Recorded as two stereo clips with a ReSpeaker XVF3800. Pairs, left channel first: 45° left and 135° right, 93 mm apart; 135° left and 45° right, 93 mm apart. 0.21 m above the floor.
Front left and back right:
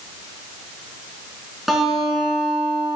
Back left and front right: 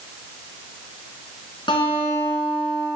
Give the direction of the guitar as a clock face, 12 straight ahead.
7 o'clock.